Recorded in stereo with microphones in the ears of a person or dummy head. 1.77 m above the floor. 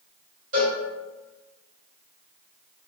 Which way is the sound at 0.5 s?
45° right (ahead or behind).